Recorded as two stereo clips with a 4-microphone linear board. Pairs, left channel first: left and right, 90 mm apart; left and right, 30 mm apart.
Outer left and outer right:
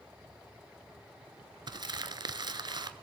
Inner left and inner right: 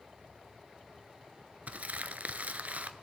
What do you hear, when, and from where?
1.7 s crumpling: 55° right (ahead or behind), 0.7 m